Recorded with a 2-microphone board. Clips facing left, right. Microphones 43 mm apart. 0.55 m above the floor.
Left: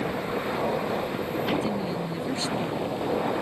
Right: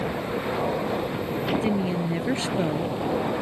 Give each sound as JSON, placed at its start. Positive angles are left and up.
{"t": 1.6, "sound": "a woman speaking", "side_deg": -35}